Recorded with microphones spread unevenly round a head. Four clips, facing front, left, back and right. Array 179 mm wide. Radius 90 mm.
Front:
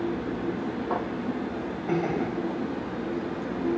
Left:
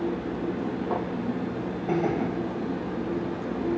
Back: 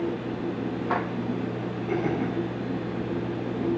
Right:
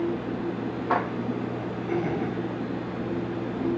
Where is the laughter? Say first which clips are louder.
Left 2 dB, even; 75° left, 7.5 m.